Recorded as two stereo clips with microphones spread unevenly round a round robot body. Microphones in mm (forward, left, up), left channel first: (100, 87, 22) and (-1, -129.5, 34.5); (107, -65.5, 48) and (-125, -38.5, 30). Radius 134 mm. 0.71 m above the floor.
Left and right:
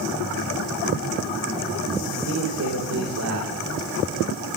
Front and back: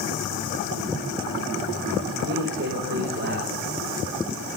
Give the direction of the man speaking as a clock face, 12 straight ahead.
5 o'clock.